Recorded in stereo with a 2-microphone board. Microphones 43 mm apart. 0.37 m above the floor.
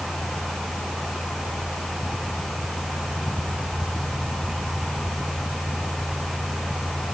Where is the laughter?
No laughter in this recording.